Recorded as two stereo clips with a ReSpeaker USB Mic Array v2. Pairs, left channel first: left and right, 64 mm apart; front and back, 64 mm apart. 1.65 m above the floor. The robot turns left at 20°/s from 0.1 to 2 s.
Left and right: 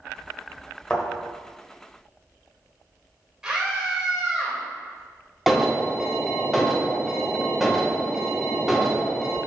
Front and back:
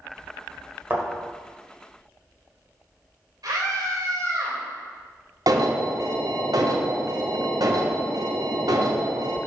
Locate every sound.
0.9 s a thud: 155° left, 1.6 m; by 1.1 s 150° left, 1.6 m
3.4 s a scream: 165° right, 2.5 m
5.5 s an alarm: straight behind, 0.9 m